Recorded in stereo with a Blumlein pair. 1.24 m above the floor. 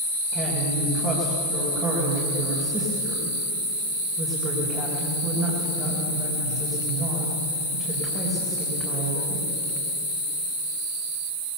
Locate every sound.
0.3 s a woman speaking: 25° right, 5 m